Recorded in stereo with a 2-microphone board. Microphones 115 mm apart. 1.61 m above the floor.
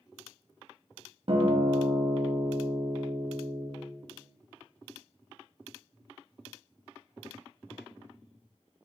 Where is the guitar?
55° right (ahead or behind), 0.6 m.